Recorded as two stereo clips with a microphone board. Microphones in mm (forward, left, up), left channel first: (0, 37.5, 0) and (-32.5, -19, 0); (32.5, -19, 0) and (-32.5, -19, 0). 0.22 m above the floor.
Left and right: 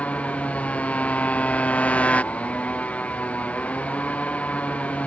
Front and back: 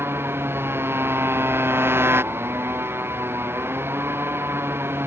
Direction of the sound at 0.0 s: 130° left.